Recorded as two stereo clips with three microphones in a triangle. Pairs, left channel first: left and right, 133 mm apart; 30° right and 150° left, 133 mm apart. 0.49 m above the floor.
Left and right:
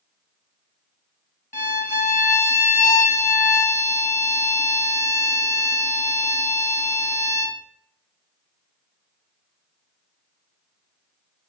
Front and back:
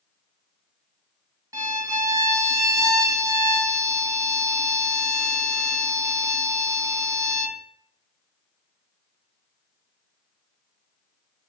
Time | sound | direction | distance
1.5 | a violin | 90° left | 0.6 m